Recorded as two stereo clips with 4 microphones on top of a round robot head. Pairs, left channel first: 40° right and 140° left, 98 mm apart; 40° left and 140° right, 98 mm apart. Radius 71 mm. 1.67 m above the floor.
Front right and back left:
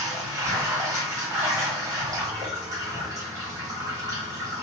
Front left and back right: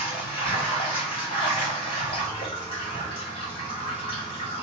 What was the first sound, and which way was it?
Running water, 80° left.